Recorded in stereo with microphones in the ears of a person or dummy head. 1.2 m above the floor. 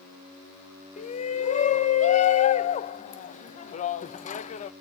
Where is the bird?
I don't hear a bird.